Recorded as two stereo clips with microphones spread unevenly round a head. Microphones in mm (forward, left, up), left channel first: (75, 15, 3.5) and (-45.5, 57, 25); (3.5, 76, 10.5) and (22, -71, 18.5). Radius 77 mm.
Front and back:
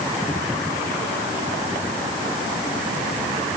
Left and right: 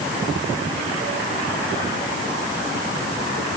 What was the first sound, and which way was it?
Only background noise.